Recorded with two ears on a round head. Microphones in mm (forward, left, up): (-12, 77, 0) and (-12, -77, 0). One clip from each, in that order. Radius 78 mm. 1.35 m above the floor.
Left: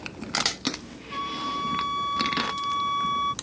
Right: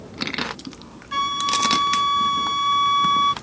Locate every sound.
1.1 s a flute: 40° right (ahead or behind)